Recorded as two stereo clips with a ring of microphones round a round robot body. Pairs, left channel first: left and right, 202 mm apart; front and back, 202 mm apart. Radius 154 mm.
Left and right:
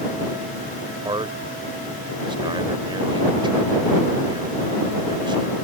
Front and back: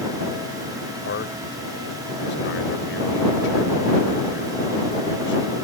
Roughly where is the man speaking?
Ahead right.